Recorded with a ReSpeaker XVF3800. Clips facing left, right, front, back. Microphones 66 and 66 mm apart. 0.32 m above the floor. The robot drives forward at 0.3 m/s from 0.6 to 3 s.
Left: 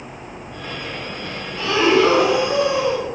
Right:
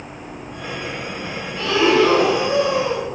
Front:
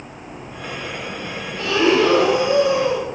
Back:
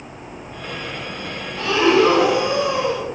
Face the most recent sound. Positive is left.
turn(degrees=165)